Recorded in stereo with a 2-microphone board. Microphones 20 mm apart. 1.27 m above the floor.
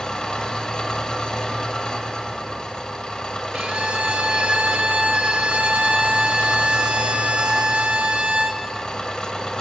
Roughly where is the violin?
Right.